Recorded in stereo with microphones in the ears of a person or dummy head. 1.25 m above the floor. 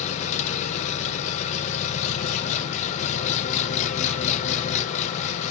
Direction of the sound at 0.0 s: 40° left (ahead or behind).